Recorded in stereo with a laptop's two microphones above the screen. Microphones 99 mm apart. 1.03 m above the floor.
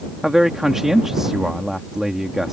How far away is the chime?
No chime in this recording.